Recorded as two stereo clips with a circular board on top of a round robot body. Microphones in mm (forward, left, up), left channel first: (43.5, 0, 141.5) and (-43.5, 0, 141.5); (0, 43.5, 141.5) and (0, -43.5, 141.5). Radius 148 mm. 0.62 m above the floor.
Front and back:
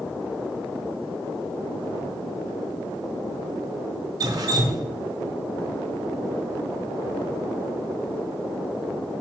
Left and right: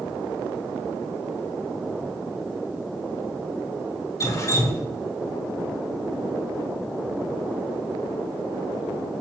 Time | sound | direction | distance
4.2 | dripping | 140° left | 0.7 m